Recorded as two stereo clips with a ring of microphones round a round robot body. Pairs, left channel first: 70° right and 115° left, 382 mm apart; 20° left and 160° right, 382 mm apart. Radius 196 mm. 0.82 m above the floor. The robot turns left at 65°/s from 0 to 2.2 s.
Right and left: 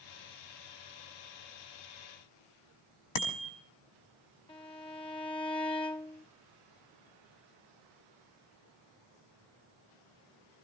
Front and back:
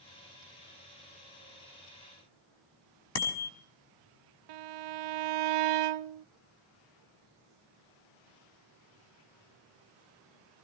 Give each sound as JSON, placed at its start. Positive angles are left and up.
{"t": 3.1, "sound": "a bicycle bell", "azimuth_deg": -30, "distance_m": 4.5}
{"t": 4.5, "sound": "a violin", "azimuth_deg": -145, "distance_m": 0.5}